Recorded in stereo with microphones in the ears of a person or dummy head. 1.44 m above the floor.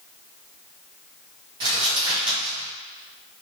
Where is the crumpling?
25° right (ahead or behind), 1.7 m.